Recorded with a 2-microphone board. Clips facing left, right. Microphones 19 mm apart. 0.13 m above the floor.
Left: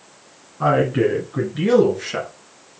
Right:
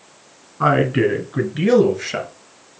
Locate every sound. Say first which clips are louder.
0.6 s a man speaking: right 1 dB; 30° right (ahead or behind), 1.8 m; by 2.3 s 15° right (ahead or behind), 2.5 m